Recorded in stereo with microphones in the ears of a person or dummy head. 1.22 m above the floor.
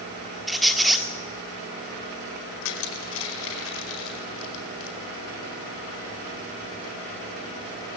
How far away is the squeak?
About 1.5 m.